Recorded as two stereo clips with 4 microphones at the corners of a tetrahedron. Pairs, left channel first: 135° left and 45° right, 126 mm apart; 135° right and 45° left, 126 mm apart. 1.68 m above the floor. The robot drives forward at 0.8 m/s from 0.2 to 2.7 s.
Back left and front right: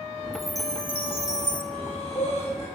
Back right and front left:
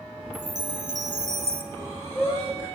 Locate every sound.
0.3 s a chime: 40° left, 1.5 m; by 1.6 s 85° left, 1.0 m
1.7 s breathing: 155° left, 6.5 m; by 2.7 s 160° left, 7 m